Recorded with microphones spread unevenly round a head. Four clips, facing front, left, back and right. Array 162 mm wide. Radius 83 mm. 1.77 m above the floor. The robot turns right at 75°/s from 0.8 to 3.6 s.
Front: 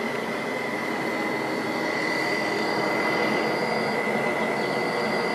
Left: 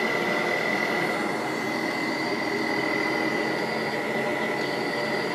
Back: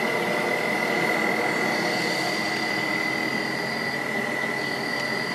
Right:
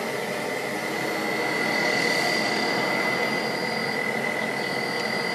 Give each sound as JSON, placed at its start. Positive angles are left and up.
{"t": 0.0, "sound": "an insect", "azimuth_deg": 145, "distance_m": 1.0}